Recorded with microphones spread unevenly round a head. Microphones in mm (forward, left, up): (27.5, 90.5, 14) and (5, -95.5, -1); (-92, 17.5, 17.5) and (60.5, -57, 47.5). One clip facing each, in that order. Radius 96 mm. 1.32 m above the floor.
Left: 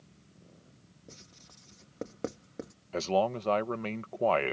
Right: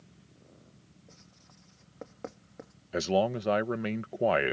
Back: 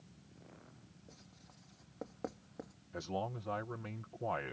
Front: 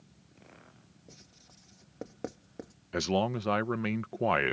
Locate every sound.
1.1 s writing: 40° left
2.9 s a man speaking: 20° right